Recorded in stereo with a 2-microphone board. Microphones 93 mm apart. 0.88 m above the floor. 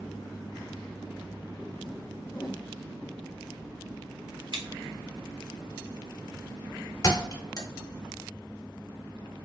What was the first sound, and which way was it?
A whoosh, 40° left (ahead or behind).